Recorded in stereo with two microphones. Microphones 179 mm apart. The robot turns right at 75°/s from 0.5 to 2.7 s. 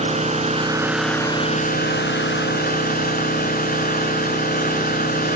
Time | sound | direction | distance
0.0 | an engine running | 40° right | 2.0 m